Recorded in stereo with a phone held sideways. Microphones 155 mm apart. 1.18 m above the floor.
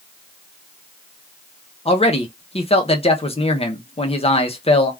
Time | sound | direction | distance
1.9 | a man speaking | 40° left (ahead or behind) | 0.7 m